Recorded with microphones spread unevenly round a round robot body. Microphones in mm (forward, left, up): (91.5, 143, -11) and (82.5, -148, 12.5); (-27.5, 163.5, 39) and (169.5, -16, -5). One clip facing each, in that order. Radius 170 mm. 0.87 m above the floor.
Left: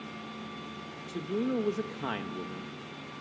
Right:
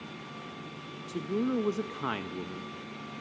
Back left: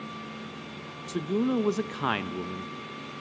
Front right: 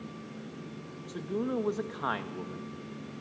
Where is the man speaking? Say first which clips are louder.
Right 1 dB, back left 6 dB; 175° right, 0.5 m.